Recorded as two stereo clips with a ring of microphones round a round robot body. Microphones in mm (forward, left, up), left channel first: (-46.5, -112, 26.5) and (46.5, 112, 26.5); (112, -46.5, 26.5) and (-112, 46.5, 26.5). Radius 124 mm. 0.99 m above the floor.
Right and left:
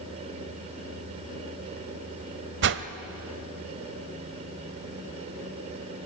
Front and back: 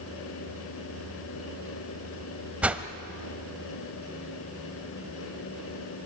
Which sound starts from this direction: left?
A whoosh, at 2.6 s.